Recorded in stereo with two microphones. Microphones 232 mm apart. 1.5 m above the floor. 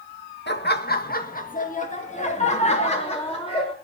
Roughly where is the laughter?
Left.